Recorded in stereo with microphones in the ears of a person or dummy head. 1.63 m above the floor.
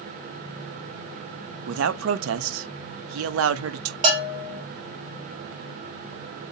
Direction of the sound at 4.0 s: 30° right (ahead or behind).